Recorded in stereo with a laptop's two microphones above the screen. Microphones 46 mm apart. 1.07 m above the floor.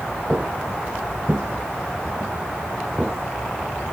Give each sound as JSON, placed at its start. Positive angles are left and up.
{"t": 0.3, "sound": "footsteps", "side_deg": -30}